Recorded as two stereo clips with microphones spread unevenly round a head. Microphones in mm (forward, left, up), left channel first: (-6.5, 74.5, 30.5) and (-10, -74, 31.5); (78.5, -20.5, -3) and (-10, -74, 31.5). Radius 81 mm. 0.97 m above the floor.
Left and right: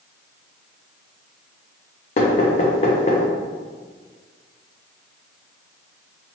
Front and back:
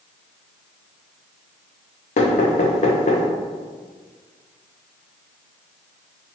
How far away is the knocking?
About 0.5 m.